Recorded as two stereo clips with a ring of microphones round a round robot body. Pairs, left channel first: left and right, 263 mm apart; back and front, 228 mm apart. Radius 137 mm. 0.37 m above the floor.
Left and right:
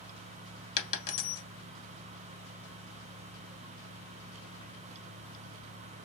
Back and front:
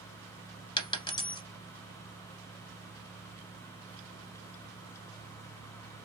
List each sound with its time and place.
0.8 s a dropped coin: 110° left, 1.1 m